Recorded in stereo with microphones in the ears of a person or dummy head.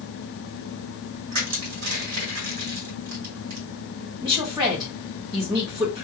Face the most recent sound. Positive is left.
turn(degrees=-25)  # may be behind; listen again after turning